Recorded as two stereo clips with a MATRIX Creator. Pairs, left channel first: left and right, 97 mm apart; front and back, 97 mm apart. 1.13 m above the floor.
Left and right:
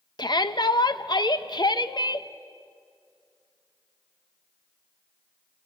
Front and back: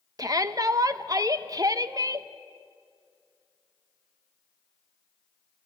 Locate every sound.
0.2 s a shout: 130° left, 0.9 m